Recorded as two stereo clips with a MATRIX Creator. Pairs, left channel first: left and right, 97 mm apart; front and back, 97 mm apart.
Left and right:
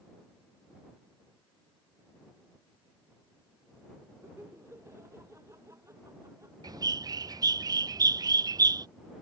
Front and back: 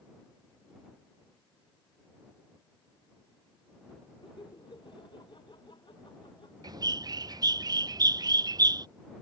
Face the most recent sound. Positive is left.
turn(degrees=-135)